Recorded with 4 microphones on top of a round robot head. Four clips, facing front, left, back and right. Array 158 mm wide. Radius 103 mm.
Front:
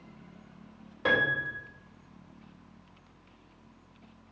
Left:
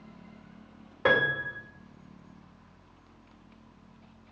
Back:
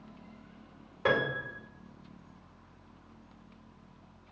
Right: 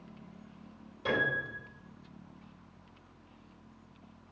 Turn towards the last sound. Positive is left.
turn(degrees=70)